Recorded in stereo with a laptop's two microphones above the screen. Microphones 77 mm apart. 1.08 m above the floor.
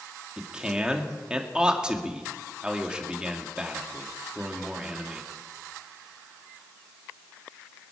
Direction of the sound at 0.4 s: 10° right (ahead or behind).